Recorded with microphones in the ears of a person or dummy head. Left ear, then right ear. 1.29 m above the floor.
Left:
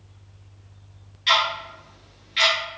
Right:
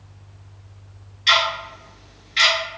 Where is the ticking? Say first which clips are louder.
Right 3 dB; 5° left (ahead or behind), 1.0 m.